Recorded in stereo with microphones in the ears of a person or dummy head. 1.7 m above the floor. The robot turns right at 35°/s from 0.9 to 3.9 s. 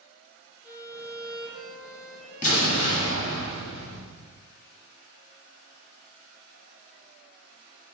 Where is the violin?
50° left, 1.7 m; by 3.4 s 135° left, 1.7 m.